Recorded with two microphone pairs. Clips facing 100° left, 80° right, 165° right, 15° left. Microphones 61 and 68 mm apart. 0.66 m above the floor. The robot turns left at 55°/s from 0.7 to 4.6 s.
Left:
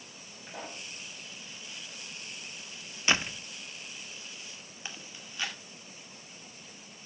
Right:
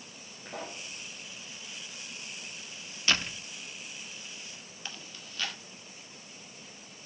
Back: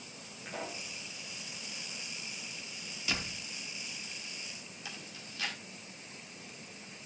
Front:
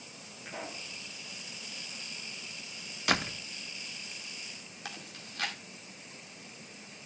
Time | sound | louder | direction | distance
0.5 | a pop | right 2 dB, back 1 dB | 70° right | 6.5 m
3.1 | a door slam | left 2 dB, front 8 dB | 40° left | 0.6 m
4.8 | chewing | even, front 3 dB | 35° left | 2.0 m